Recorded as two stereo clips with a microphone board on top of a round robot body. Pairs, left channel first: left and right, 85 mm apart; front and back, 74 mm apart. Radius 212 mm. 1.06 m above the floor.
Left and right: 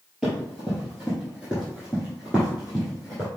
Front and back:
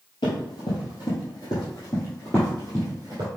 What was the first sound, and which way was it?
Running footsteps, 5° right.